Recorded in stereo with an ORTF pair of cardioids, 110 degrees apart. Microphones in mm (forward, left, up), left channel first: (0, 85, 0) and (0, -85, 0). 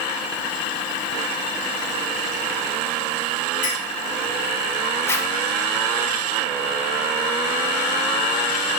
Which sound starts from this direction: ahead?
A zipper, at 5.1 s.